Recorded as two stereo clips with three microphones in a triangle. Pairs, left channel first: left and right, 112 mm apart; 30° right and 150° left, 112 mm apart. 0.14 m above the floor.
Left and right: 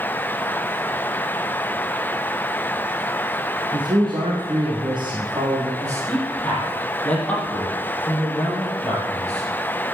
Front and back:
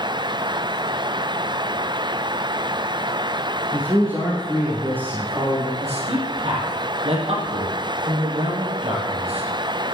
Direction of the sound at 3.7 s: 140° right.